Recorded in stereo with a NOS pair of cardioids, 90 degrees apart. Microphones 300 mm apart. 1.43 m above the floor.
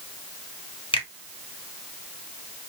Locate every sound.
0.9 s a finger snap: 15° left, 1.8 m